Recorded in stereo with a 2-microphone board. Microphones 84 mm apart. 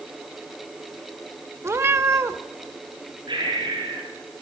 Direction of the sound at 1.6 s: 35° right (ahead or behind).